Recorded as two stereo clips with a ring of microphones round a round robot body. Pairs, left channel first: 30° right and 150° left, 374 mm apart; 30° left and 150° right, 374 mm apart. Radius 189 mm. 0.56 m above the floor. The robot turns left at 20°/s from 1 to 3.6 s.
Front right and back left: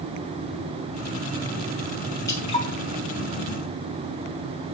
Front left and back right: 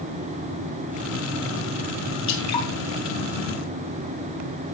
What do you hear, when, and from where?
2.3 s dripping: 50° left, 3.5 m; by 2.7 s 45° left, 3.5 m